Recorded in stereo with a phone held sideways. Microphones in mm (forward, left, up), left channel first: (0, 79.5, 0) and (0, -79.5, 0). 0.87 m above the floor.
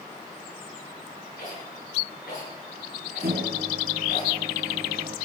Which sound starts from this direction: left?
A rattle, at 1.4 s.